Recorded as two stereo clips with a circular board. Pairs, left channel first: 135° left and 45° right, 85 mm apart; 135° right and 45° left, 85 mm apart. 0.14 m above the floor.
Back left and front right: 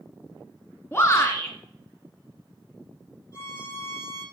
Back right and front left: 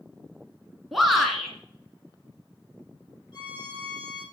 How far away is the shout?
About 1.3 m.